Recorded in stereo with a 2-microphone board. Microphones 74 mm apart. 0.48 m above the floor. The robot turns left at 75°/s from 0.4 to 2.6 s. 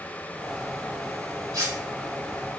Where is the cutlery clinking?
60° right (ahead or behind), 1.1 m; by 1.8 s 50° right (ahead or behind), 1.1 m.